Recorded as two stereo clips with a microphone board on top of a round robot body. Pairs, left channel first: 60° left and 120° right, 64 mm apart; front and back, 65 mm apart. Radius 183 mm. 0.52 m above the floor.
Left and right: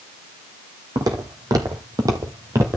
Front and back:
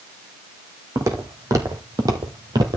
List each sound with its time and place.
0.9 s footsteps: 140° right, 1.6 m; by 2.8 s 175° right, 0.7 m